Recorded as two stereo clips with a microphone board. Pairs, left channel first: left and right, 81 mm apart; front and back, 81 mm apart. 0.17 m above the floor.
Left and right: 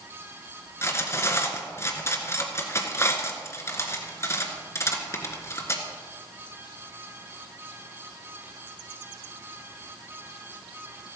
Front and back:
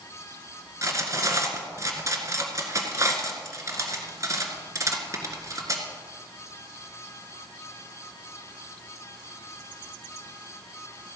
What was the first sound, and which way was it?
Cutlery clinking, 140° left.